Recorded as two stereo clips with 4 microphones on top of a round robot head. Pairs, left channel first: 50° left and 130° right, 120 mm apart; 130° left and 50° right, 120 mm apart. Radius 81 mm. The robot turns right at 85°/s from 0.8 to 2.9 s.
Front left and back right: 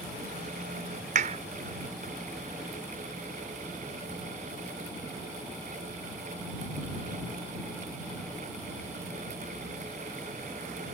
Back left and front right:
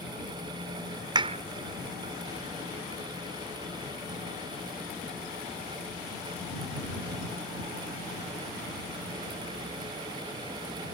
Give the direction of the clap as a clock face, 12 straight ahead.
3 o'clock.